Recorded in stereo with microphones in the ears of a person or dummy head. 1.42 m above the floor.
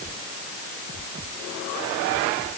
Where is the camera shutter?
No camera shutter in this recording.